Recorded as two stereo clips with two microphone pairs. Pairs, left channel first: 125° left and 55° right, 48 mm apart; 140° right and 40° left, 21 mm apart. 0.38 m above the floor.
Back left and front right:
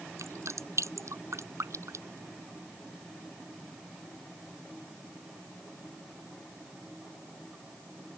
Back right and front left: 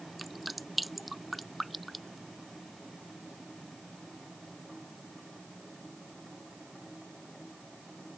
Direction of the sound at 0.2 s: 50° right.